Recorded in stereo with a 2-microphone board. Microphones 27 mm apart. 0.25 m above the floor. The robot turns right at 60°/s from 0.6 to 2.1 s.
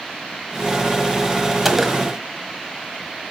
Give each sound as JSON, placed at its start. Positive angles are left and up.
{"t": 1.6, "sound": "a gunshot", "side_deg": -5, "distance_m": 1.3}